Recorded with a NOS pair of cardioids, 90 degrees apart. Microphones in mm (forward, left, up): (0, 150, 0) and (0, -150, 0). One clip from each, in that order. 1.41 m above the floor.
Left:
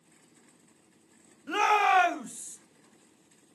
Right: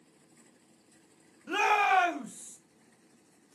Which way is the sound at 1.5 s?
Straight ahead.